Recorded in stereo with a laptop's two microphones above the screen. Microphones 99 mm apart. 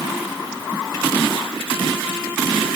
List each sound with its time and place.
Only background noise.